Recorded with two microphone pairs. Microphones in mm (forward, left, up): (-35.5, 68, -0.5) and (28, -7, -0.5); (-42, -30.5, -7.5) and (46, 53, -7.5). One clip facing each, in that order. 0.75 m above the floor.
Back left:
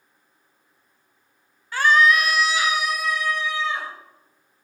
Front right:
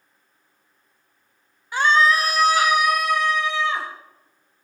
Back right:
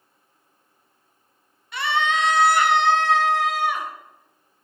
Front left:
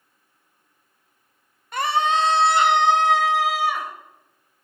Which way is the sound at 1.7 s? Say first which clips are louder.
Even, front left 2 dB; 20° left.